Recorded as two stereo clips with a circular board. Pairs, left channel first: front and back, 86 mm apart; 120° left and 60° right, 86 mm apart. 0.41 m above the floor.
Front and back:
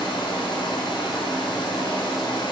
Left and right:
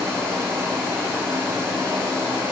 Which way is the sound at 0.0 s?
Straight ahead.